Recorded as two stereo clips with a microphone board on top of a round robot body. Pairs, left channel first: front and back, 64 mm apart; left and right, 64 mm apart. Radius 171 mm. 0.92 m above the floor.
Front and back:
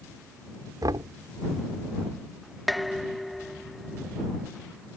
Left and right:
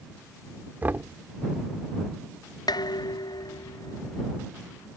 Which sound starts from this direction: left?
Dishes clattering, at 2.7 s.